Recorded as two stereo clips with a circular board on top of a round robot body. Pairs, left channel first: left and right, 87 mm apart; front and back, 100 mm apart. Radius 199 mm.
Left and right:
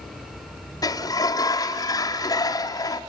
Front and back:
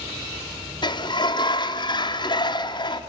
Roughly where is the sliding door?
Ahead left.